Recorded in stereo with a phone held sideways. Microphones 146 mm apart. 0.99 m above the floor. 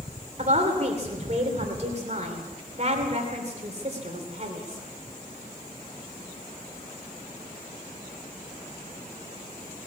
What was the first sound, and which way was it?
A woman speaking, 50° right (ahead or behind).